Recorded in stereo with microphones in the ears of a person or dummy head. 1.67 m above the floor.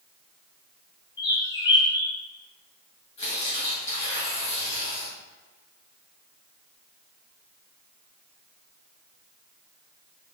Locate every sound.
1.2 s a bird: 25° left (ahead or behind), 0.5 m
3.2 s tearing paper: 30° left (ahead or behind), 1.5 m